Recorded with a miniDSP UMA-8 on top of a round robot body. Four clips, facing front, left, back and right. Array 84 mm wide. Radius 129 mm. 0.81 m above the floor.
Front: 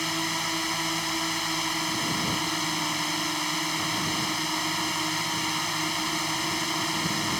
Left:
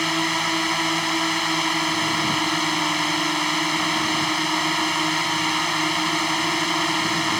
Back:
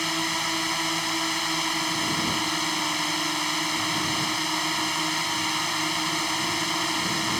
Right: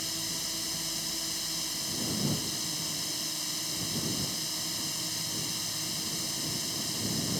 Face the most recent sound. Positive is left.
turn(degrees=90)